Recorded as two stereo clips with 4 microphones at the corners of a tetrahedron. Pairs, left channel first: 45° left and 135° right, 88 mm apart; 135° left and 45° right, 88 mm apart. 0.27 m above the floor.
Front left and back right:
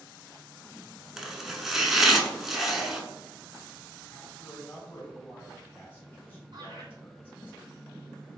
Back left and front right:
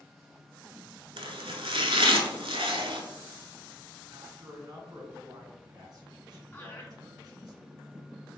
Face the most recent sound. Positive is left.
turn(degrees=-165)